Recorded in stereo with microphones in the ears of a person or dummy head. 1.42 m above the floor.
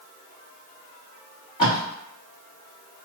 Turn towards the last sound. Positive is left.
turn(degrees=25)  # may be behind; listen again after turning